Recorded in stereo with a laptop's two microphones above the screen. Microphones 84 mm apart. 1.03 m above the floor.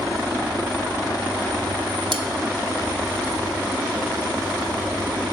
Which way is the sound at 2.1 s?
70° right (ahead or behind).